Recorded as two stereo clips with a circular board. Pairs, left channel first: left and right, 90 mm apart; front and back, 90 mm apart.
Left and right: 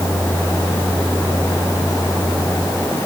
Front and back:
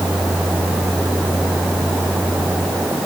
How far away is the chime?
No chime in this recording.